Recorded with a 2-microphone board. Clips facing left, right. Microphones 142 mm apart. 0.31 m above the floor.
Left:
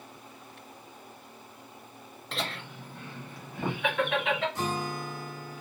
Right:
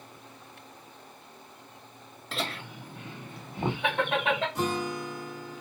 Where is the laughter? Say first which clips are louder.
Right 1 dB; centre (ahead or behind), 1.2 m; by 4.5 s 35° right (ahead or behind), 2 m.